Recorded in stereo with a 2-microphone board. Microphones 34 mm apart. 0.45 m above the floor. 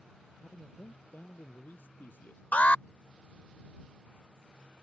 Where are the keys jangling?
I don't hear keys jangling.